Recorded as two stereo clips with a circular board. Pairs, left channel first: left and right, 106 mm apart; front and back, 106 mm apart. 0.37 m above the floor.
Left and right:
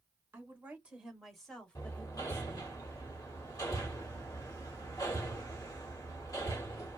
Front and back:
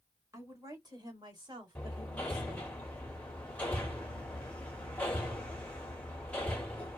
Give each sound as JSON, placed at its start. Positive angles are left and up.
{"t": 0.3, "sound": "a woman speaking", "azimuth_deg": -140, "distance_m": 1.5}
{"t": 1.8, "sound": "hammering", "azimuth_deg": 70, "distance_m": 1.3}